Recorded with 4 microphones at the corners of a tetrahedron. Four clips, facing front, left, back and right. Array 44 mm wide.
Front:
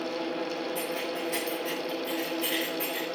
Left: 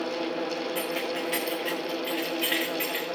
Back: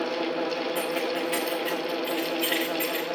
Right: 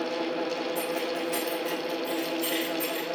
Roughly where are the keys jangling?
Behind left.